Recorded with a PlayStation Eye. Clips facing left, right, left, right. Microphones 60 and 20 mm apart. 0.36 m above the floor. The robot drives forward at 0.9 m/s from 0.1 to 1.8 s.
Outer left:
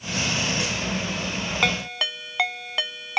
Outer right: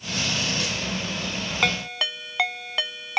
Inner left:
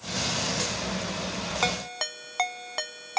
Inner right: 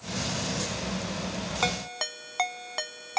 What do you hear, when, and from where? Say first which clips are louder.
1.6 s a ringtone: even, even; centre (ahead or behind)